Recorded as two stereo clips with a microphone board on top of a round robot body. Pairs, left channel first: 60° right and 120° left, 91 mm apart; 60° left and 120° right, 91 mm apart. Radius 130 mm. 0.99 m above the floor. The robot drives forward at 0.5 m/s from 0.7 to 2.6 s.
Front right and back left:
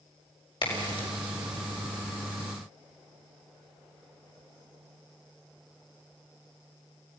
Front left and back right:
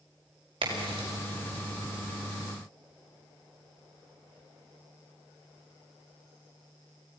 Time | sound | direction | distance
0.6 | a crack | 90° right | 5.5 m